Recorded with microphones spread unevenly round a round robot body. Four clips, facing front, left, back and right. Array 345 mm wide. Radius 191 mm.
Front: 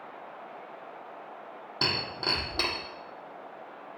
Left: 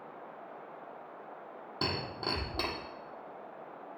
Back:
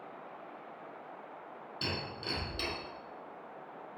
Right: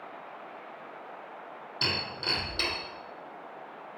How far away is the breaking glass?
About 3.5 m.